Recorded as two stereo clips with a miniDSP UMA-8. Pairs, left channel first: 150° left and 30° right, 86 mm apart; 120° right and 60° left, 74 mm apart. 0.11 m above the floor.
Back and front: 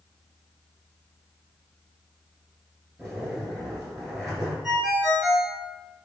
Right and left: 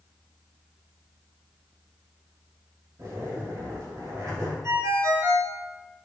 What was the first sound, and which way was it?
A zipper, 60° left.